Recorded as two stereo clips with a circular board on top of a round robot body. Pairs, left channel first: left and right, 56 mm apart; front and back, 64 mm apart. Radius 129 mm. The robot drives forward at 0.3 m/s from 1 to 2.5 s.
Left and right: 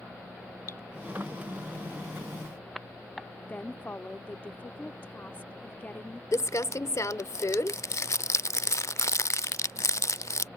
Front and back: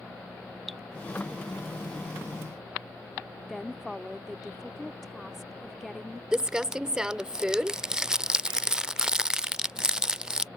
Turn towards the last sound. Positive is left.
turn(degrees=100)